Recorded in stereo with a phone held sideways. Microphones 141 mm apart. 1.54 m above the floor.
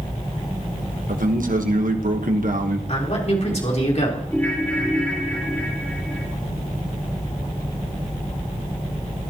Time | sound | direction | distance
1.1 | a man speaking | 75° right (ahead or behind) | 1.4 m
2.9 | a man speaking | 50° left (ahead or behind) | 4 m
4.3 | a ringtone | 15° left (ahead or behind) | 5 m